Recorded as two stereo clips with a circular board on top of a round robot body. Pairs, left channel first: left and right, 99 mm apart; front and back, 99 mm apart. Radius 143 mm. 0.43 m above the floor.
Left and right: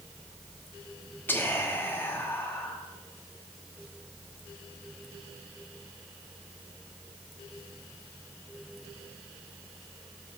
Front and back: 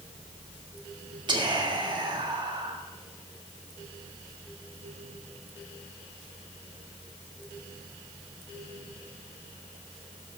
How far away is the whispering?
About 1.9 m.